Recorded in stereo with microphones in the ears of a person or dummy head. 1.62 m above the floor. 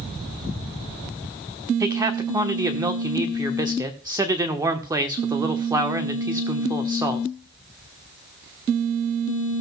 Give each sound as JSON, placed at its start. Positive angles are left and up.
{"t": 1.8, "sound": "a man speaking", "side_deg": -15, "distance_m": 1.2}